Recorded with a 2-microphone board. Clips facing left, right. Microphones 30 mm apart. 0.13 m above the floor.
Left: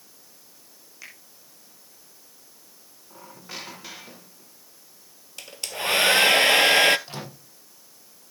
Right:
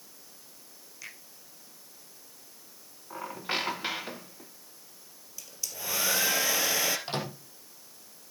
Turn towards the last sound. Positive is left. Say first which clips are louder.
# right 4 dB
turn(degrees=-35)  # may be behind; listen again after turning